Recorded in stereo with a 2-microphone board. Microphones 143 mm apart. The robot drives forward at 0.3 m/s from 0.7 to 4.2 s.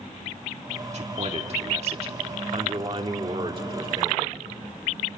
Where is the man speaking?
50° right (ahead or behind), 1.9 m; by 4.4 s 35° right (ahead or behind), 2.5 m.